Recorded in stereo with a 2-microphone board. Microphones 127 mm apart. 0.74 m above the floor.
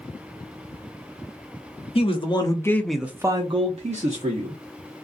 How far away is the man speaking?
About 0.8 m.